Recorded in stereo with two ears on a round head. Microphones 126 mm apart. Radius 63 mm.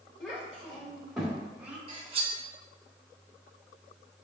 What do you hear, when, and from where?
0.2 s a child speaking: 5° left (ahead or behind), 3.5 m; by 1.8 s 10° right (ahead or behind), 2 m
1.9 s cutlery clinking: 40° right (ahead or behind), 1.3 m